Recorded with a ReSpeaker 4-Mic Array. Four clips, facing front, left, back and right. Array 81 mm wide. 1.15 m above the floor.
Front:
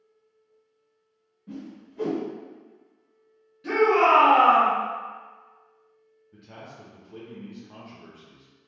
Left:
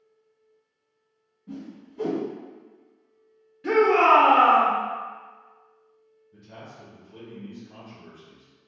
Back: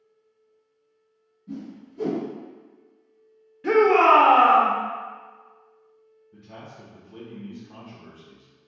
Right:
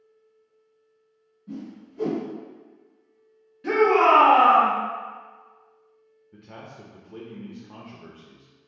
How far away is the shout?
About 0.7 m.